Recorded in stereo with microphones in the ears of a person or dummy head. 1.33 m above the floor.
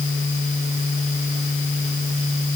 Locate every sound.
Only background noise.